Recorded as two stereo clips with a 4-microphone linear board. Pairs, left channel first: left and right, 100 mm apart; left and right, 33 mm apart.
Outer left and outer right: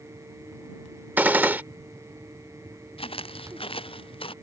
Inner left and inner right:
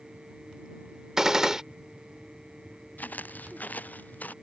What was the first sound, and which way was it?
A gunshot, 20° right (ahead or behind).